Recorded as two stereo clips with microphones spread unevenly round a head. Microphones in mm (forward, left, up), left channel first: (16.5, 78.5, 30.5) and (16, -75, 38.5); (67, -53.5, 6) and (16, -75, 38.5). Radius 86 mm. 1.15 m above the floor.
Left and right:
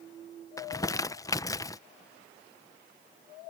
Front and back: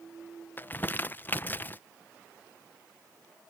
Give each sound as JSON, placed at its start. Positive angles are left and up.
{"t": 0.6, "sound": "crumpling", "azimuth_deg": 25}